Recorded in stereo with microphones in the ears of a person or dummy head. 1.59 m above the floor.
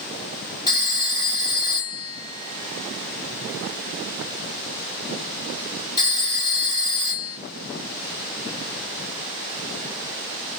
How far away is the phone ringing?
About 1.2 m.